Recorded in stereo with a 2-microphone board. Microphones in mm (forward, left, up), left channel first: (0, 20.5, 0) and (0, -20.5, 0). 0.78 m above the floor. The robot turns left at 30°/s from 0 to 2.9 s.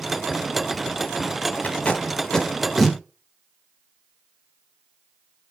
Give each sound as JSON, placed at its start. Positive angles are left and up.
{"t": 1.6, "sound": "tape being pulled", "side_deg": 35, "distance_m": 1.5}